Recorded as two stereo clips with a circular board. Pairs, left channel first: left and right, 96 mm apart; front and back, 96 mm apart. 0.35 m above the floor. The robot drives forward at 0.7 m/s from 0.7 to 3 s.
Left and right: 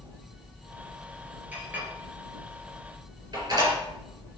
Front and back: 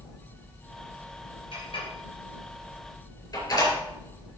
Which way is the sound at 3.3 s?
45° right.